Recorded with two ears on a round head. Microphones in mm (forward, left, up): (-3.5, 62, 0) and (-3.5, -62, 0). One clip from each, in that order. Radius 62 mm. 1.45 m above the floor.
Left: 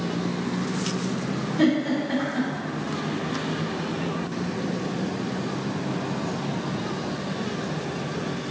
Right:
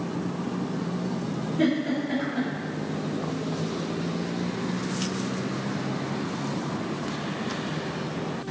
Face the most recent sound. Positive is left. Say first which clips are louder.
# left 3 dB
turn(degrees=60)  # may be behind; listen again after turning